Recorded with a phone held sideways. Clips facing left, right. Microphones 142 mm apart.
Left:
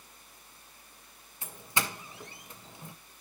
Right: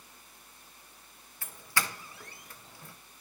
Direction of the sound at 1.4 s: 20° left (ahead or behind).